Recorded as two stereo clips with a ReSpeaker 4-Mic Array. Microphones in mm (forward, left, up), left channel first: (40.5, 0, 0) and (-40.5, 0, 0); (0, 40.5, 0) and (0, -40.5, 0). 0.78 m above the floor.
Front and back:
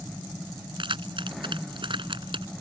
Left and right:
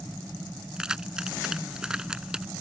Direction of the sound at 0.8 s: 170° right.